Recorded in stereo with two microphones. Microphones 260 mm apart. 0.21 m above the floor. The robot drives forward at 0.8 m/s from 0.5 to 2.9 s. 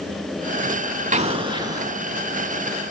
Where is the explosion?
30° right (ahead or behind), 0.5 m; by 1.9 s 15° right (ahead or behind), 1.1 m.